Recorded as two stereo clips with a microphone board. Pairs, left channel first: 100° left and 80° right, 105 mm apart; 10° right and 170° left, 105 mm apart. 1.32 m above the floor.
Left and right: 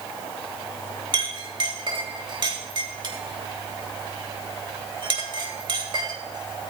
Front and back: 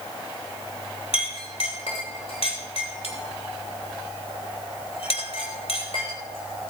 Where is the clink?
35° right, 3 m.